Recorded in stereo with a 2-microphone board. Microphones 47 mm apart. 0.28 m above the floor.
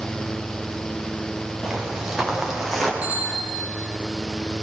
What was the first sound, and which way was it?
Footsteps, 10° right (ahead or behind).